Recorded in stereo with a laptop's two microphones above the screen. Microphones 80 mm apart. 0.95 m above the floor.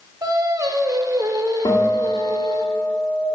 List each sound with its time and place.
0.2 s singing: 50° right (ahead or behind), 0.7 m
1.6 s a guitar: 75° left (ahead or behind), 2.0 m